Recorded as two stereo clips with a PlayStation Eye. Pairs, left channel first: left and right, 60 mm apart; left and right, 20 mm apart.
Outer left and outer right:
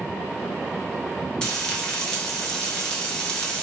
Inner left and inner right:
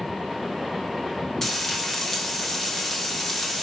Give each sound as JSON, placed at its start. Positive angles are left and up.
{"t": 1.4, "sound": "frying", "side_deg": 15, "distance_m": 1.1}